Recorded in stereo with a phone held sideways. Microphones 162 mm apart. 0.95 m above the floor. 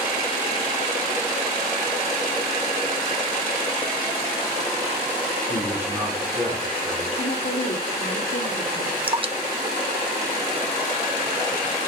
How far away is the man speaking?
About 7.5 m.